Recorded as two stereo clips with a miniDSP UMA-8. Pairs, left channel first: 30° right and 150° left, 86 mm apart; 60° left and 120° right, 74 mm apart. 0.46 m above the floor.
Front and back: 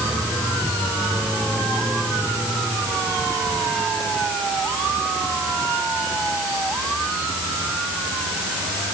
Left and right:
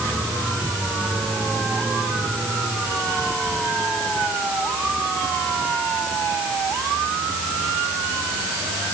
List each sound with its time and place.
Only background noise.